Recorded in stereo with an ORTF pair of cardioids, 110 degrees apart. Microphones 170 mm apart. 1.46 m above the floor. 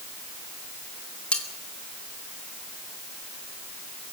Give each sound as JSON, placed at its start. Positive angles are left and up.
{"t": 1.3, "sound": "cutlery clinking", "azimuth_deg": 5, "distance_m": 3.0}